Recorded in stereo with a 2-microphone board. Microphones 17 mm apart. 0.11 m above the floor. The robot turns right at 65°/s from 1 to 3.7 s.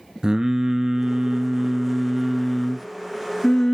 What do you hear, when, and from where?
0.2 s singing: 95° right, 0.6 m; by 3.7 s 80° left, 0.6 m